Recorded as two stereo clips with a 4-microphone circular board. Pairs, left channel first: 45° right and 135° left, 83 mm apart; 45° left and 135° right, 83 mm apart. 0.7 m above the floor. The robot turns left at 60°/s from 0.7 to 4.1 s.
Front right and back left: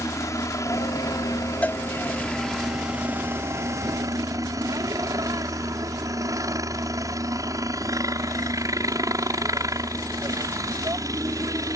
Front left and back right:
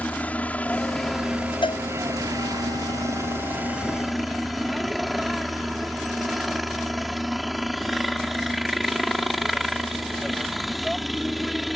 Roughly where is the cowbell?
Ahead left.